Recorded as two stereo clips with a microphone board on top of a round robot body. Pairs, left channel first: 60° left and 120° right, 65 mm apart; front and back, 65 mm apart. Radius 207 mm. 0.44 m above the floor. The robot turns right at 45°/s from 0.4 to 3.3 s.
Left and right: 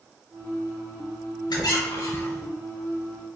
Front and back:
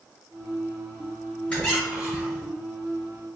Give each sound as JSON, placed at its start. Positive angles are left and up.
{"t": 1.5, "sound": "a squeak", "azimuth_deg": 75, "distance_m": 0.7}